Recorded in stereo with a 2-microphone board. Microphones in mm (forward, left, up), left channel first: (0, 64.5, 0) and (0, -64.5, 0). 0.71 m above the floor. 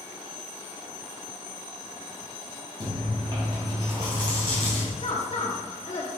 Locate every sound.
2.8 s chewing: 35° right (ahead or behind), 3 m
5.0 s a woman speaking: 55° left (ahead or behind), 1.4 m